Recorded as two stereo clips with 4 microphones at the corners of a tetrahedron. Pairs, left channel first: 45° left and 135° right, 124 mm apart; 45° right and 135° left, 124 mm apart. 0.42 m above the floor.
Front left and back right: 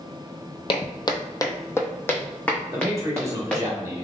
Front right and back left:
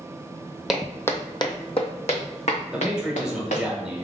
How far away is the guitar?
I don't hear a guitar.